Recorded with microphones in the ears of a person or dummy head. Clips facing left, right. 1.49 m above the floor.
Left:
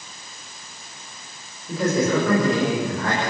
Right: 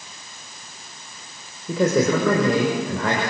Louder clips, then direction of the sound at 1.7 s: Right 2 dB; 65° right (ahead or behind).